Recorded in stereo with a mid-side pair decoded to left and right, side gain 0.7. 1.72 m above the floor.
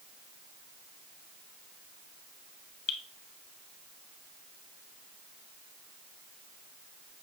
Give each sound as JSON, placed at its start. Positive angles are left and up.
{"t": 2.9, "sound": "dripping", "azimuth_deg": 60, "distance_m": 1.0}